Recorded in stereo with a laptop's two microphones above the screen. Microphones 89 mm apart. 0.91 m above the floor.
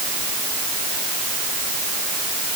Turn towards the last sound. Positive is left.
No sound to turn to.